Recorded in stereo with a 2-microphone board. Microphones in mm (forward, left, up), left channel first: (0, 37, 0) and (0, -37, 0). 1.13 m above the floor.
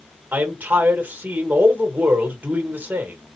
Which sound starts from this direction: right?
A man speaking, at 0.3 s.